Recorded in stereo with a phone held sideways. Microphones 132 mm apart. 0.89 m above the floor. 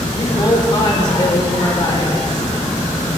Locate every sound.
0.2 s a woman speaking: 35° left (ahead or behind), 3 m